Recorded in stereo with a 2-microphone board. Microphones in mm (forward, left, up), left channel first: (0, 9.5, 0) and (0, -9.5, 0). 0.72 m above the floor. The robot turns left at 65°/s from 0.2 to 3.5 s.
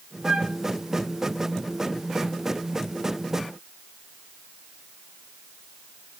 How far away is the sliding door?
No sliding door in this recording.